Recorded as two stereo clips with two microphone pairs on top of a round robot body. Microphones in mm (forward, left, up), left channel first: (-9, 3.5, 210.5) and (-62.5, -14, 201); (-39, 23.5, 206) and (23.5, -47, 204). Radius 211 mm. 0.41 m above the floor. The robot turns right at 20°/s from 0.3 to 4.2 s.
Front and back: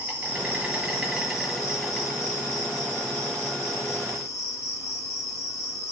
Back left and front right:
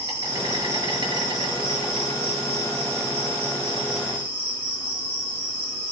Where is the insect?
95° right, 6.5 m; by 5.9 s 15° right, 6.5 m.